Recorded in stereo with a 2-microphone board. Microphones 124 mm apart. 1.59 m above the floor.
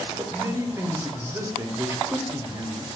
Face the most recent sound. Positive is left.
turn(degrees=-20)  # may be behind; listen again after turning